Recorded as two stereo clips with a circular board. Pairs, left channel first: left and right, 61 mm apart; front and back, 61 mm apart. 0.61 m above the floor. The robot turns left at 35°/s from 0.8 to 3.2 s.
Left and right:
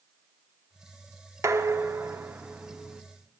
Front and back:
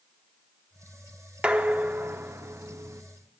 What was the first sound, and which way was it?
Dishes clattering, 110° right.